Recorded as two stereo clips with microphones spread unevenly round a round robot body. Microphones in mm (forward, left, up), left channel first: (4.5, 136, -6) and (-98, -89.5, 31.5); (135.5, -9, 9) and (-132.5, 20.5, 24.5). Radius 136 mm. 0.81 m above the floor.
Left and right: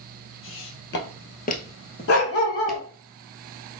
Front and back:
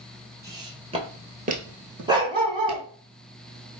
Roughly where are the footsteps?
Left.